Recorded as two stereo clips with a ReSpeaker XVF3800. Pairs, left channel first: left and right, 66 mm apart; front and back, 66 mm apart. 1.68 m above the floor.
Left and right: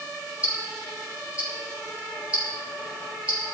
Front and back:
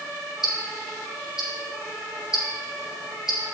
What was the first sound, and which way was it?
Ticking, 15° right.